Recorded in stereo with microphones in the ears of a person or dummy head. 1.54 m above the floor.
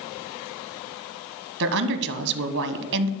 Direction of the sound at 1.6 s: 60° right (ahead or behind).